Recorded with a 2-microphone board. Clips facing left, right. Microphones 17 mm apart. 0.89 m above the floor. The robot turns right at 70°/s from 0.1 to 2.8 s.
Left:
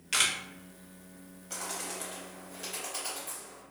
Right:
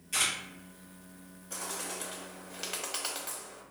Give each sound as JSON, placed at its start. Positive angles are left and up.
{"t": 0.1, "sound": "a camera shutter", "side_deg": 50, "distance_m": 0.6}
{"t": 1.5, "sound": "a bird", "side_deg": 40, "distance_m": 0.7}